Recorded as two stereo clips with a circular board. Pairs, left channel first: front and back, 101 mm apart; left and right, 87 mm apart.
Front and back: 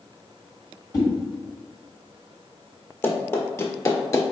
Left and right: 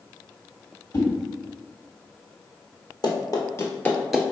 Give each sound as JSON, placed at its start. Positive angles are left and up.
{"t": 0.9, "sound": "a whoosh", "azimuth_deg": 50, "distance_m": 1.4}
{"t": 3.0, "sound": "running footsteps", "azimuth_deg": 65, "distance_m": 1.2}